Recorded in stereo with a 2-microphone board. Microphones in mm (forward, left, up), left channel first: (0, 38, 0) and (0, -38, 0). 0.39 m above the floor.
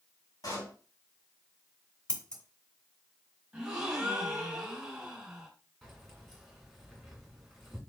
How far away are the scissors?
About 1.1 m.